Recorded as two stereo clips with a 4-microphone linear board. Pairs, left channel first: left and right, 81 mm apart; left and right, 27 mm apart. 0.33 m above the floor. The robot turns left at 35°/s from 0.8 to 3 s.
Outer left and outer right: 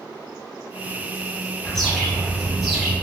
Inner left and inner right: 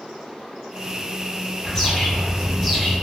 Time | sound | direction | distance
1.6 | a bird | 10° left (ahead or behind) | 1.5 m